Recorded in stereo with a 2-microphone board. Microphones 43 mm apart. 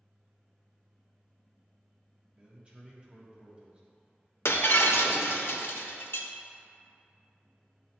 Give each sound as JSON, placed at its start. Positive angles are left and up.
{"t": 2.4, "sound": "a man speaking", "side_deg": -30, "distance_m": 1.3}
{"t": 4.5, "sound": "breaking glass", "side_deg": 75, "distance_m": 0.5}